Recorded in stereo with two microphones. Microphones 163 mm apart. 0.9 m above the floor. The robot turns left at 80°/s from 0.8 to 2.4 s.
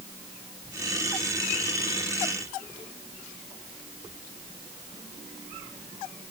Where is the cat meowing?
No cat meowing in this recording.